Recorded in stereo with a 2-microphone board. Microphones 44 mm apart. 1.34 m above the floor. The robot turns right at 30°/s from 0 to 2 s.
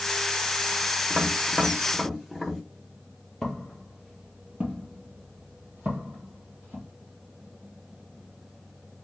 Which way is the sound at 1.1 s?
20° right (ahead or behind).